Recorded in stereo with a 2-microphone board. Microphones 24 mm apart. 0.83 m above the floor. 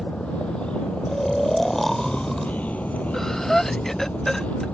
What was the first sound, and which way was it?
A vehicle, 45° left (ahead or behind).